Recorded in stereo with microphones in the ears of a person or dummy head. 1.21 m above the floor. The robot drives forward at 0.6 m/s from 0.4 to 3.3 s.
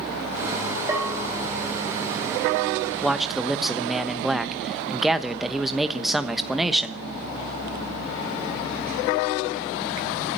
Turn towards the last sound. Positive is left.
turn(degrees=0)  # may be behind; listen again after turning